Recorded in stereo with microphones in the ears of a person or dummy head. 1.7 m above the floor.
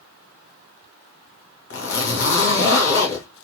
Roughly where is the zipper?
Left.